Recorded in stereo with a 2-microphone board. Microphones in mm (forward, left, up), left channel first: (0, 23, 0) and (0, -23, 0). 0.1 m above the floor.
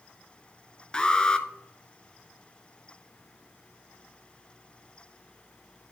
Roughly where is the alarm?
Left.